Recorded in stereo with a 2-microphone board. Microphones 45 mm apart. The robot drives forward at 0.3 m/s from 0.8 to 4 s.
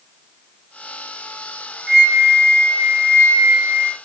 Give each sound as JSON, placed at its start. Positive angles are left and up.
{"t": 1.9, "sound": "a flute", "side_deg": -5, "distance_m": 2.5}